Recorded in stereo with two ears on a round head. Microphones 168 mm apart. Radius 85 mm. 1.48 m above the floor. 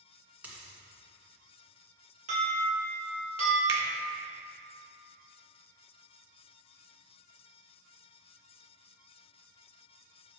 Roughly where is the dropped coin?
Centre.